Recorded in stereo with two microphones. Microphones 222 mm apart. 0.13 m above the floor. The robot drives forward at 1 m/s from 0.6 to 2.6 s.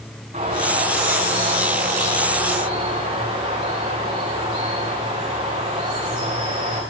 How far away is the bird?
About 9.5 m.